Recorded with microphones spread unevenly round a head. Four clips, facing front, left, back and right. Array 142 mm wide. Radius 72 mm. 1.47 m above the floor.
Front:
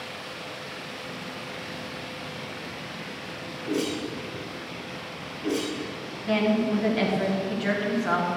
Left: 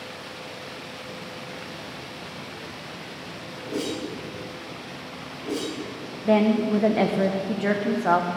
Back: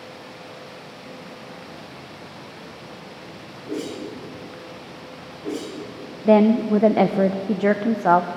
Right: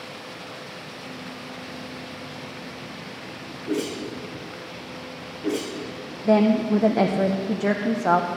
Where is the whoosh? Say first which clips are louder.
Right 2 dB, front 1 dB; 65° right, 4.5 m.